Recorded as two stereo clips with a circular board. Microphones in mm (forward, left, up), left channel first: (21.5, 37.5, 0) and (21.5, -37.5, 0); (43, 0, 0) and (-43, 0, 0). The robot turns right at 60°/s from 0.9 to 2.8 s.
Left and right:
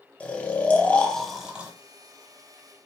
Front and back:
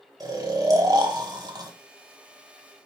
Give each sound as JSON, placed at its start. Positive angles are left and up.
{"t": 0.2, "sound": "snoring", "azimuth_deg": 155, "distance_m": 0.7}